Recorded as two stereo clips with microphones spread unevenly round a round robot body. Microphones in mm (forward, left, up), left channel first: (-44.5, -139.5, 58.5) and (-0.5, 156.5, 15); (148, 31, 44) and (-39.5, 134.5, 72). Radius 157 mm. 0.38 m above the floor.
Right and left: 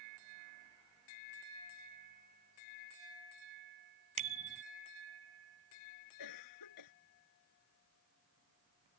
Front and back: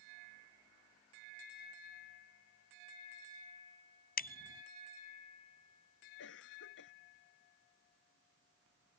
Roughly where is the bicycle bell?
Ahead.